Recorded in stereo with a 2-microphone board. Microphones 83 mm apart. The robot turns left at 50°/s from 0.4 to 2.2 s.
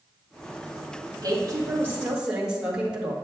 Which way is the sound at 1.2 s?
120° right.